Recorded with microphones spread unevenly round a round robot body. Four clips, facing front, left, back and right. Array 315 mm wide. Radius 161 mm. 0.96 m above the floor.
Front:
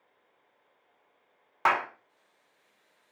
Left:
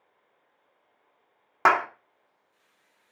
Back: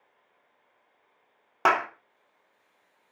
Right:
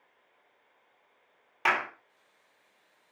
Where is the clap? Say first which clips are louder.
Left 8 dB, back 3 dB; 135° left, 1.6 m.